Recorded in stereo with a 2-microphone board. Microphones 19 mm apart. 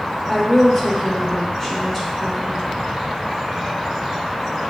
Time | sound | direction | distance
0.3 | a woman speaking | 20° left (ahead or behind) | 0.8 m